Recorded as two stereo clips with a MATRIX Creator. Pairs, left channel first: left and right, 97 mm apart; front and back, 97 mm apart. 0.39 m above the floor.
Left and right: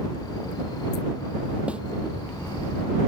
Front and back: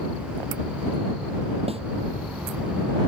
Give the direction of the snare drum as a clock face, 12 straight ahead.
6 o'clock.